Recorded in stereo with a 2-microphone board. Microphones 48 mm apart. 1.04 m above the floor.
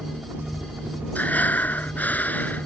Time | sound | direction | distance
0.0 | a helicopter | 30° right (ahead or behind) | ?
1.1 | breathing | 35° left (ahead or behind) | ?